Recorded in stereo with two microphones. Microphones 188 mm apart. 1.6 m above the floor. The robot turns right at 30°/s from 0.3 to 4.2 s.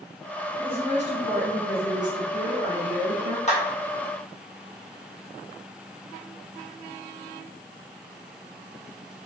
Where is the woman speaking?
155° right, 0.9 m; by 3.4 s 70° right, 0.9 m.